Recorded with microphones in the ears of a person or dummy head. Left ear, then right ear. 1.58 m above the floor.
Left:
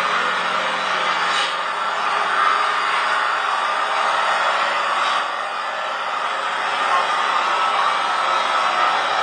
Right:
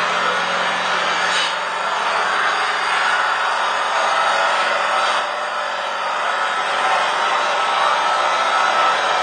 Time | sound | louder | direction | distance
0.0 | an engine running | right 1 dB | 15° right (ahead or behind) | 2 m